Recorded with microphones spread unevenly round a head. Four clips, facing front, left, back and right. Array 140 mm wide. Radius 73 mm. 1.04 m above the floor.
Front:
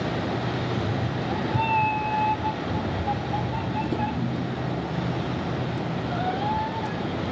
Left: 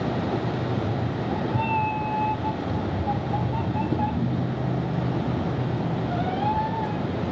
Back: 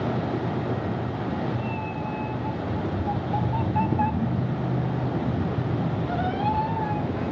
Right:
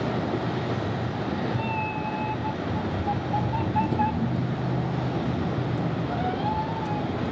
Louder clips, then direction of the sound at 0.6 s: Left 1 dB, even; 5° right.